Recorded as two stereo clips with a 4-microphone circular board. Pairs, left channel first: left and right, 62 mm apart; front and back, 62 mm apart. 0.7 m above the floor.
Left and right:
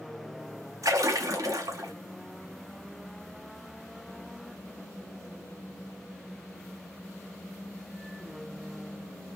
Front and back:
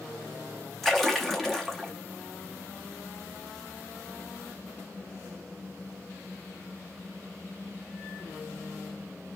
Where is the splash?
90° right, 0.8 m.